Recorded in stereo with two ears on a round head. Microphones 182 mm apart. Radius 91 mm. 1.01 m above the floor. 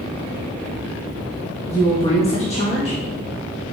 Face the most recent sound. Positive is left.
turn(degrees=30)  # may be behind; listen again after turning